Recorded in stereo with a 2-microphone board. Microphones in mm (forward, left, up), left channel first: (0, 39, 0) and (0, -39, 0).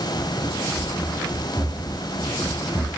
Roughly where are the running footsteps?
Centre.